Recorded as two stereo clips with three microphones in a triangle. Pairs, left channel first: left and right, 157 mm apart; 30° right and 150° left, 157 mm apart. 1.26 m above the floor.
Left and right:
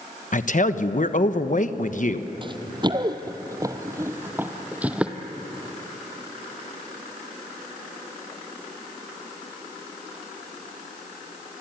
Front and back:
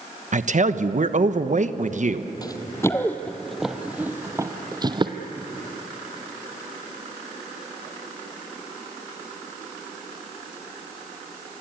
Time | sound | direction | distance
0.3 | a man speaking | 120° left | 1.1 m
2.4 | running footsteps | 70° right | 1.5 m